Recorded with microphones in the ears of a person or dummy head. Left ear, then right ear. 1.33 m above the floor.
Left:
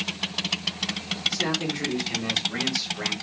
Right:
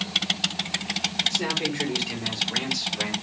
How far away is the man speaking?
About 4.5 m.